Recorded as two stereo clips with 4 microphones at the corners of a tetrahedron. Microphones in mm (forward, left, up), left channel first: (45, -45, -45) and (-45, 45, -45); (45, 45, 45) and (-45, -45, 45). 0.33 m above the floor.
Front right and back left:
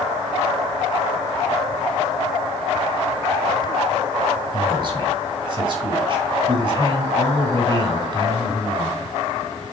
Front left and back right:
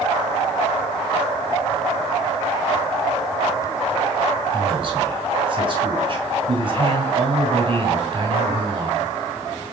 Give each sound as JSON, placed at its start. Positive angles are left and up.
{"t": 4.5, "sound": "a man speaking", "azimuth_deg": 180, "distance_m": 2.0}